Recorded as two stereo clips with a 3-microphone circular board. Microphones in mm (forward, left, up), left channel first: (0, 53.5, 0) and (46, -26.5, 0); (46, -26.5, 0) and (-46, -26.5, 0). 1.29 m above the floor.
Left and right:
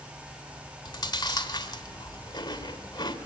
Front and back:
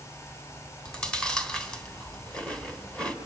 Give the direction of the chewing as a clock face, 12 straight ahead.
9 o'clock.